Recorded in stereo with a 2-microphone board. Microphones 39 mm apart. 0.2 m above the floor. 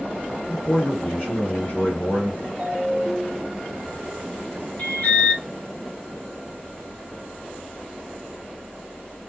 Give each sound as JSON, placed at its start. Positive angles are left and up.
{"t": 0.5, "sound": "a man speaking", "side_deg": 35, "distance_m": 2.0}
{"t": 2.6, "sound": "a ringtone", "side_deg": 5, "distance_m": 0.9}
{"t": 4.8, "sound": "an alarm", "side_deg": 45, "distance_m": 1.0}